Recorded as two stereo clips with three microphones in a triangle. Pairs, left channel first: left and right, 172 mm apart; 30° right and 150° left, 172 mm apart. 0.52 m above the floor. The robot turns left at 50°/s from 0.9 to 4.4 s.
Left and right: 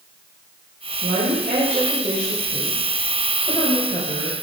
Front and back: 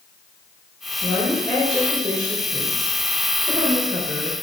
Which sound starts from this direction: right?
A woman speaking, at 1.0 s.